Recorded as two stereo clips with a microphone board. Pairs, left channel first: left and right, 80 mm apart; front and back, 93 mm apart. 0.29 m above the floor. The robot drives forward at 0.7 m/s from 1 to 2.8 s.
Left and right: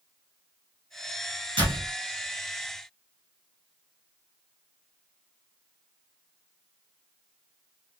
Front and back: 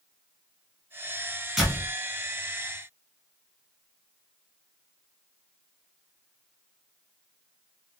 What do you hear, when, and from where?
1.6 s a door slam: 90° right, 2.5 m; by 1.9 s 100° right, 2.5 m